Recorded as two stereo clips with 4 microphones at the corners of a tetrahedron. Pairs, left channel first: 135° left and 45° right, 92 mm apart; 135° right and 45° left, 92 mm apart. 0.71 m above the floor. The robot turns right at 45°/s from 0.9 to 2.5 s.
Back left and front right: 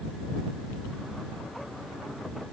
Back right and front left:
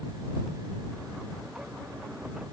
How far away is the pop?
I don't hear a pop.